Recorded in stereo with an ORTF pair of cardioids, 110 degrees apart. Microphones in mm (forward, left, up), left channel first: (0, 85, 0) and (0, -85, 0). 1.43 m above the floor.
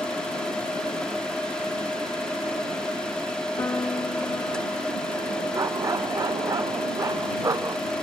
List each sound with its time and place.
0.0 s a machine running: 5° left
3.6 s a piano: 15° left
5.5 s a dog barking: 20° right